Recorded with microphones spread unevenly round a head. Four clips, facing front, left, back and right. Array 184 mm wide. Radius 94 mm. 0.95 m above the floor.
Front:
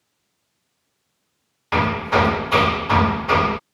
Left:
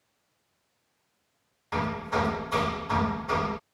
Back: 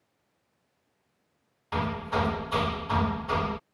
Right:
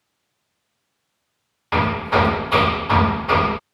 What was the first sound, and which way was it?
Hammering, 40° right.